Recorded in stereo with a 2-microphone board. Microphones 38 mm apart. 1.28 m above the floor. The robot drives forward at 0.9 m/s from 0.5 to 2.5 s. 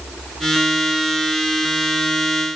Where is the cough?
No cough in this recording.